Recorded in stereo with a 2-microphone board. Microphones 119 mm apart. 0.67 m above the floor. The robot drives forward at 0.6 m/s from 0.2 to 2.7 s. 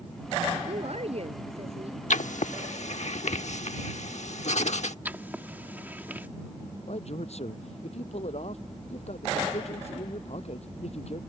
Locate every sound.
0.7 s a woman speaking: 55° right (ahead or behind); by 2.0 s 50° right (ahead or behind)
2.1 s writing: 75° left (ahead or behind); by 5.0 s 65° left (ahead or behind)
5.0 s writing: 15° right (ahead or behind)
6.9 s a man speaking: 55° left (ahead or behind)